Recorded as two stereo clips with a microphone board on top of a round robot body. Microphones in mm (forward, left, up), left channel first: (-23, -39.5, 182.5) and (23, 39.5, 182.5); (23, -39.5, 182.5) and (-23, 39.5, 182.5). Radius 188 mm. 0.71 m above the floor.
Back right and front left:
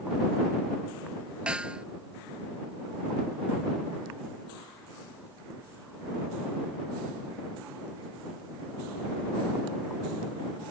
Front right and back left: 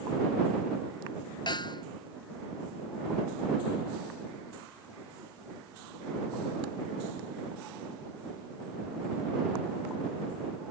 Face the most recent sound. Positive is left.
turn(degrees=-20)